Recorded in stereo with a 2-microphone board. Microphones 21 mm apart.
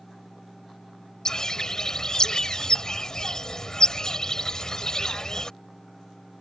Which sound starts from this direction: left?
A bird, at 1.2 s.